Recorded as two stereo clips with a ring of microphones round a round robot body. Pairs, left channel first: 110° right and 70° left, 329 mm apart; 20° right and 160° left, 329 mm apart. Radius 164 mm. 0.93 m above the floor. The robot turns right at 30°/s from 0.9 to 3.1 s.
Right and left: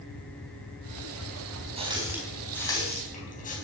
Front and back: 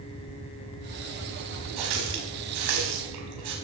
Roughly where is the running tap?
Behind left.